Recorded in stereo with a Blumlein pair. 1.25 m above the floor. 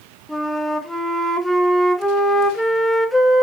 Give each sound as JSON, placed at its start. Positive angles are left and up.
{"t": 0.3, "sound": "a flute", "azimuth_deg": 5, "distance_m": 1.2}